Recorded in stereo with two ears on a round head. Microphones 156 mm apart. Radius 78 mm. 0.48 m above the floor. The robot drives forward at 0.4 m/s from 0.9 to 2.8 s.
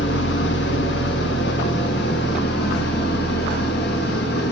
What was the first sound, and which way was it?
An engine running, 75° left (ahead or behind).